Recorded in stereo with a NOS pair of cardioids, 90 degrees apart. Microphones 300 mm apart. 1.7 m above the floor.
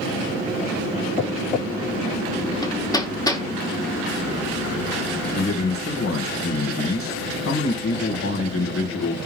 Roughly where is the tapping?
Ahead left.